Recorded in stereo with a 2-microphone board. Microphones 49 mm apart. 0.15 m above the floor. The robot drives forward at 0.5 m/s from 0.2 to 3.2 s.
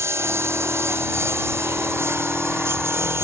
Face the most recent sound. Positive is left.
turn(degrees=-60)  # may be behind; listen again after turning